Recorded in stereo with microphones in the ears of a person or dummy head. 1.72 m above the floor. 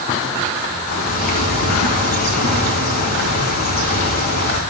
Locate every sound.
0.9 s a bird: 45° left (ahead or behind), 3 m